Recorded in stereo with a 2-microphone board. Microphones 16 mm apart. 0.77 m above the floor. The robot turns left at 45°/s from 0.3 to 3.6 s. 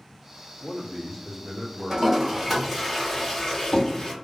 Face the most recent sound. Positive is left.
turn(degrees=35)  # may be behind; listen again after turning